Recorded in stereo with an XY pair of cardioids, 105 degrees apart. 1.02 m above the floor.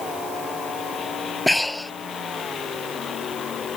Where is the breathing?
5° left.